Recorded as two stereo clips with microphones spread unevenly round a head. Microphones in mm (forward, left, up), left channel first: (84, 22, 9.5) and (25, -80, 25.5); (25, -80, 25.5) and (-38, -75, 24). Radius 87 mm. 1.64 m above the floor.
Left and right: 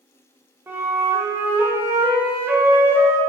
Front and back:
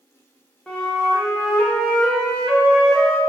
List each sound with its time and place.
0.7 s a flute: 70° right, 0.7 m